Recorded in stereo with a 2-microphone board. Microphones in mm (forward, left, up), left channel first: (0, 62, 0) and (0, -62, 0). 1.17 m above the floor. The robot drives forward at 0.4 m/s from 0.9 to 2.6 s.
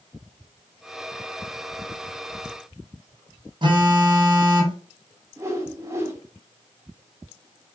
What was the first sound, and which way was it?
A phone buzzing, 40° right (ahead or behind).